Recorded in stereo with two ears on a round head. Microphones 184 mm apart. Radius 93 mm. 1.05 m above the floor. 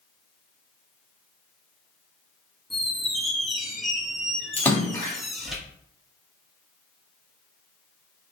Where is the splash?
10° left (ahead or behind), 1.3 m.